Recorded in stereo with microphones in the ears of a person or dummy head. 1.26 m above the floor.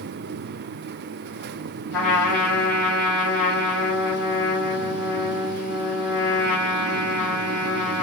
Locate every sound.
1.9 s a trumpet: 5° left (ahead or behind), 1.3 m